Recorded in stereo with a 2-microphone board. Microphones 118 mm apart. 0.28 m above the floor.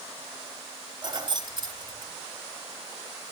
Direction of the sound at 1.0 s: 40° right (ahead or behind).